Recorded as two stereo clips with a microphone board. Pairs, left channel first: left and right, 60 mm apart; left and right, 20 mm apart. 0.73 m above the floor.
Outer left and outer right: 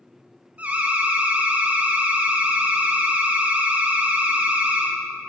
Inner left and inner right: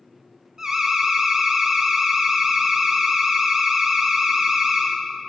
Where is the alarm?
20° right (ahead or behind), 0.9 m.